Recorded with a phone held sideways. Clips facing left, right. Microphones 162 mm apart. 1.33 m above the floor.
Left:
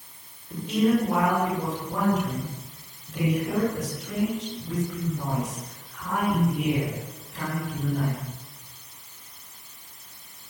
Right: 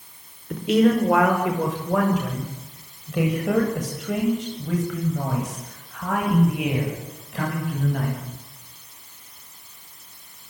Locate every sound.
0.5 s a man speaking: 85° right, 6 m